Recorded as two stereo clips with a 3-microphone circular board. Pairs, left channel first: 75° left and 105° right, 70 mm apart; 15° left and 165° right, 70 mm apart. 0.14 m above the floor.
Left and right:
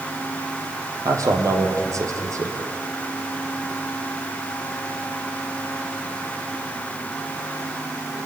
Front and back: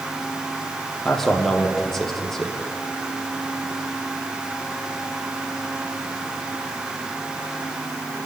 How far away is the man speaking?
About 4.5 m.